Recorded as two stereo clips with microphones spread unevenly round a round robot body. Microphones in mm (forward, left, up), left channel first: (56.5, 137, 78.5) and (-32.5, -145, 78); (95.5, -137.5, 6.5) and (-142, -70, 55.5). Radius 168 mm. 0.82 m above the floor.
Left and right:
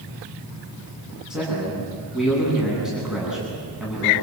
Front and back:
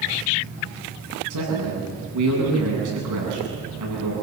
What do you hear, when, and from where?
1.3 s a man speaking: 165° left, 9 m